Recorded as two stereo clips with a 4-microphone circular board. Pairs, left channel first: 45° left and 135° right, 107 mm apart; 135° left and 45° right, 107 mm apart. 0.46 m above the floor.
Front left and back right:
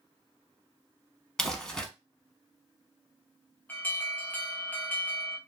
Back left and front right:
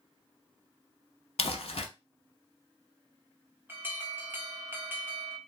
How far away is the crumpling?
About 0.7 m.